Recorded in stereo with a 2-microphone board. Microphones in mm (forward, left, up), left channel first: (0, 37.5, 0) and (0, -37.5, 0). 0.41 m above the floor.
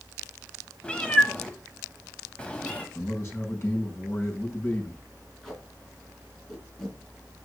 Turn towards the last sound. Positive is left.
turn(degrees=5)  # may be behind; listen again after turning